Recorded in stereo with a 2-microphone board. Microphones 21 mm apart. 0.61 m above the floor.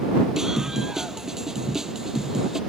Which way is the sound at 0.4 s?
20° right (ahead or behind).